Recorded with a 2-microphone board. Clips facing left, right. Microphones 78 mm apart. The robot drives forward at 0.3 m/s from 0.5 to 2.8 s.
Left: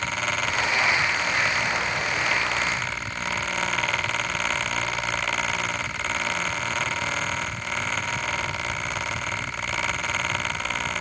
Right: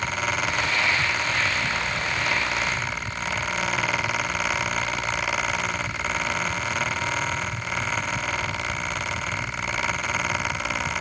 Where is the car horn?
No car horn in this recording.